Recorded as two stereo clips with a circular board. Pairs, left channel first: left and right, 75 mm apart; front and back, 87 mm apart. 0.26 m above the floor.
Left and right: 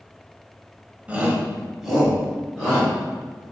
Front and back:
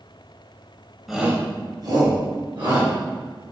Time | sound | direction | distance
1.1 | a shout | 95° right | 1.0 m